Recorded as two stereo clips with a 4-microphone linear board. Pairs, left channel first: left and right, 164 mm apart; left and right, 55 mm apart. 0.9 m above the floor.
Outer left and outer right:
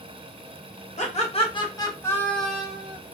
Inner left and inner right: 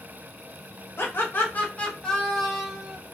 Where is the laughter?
45° left (ahead or behind), 1.2 m; by 3.0 s 15° right (ahead or behind), 1.0 m.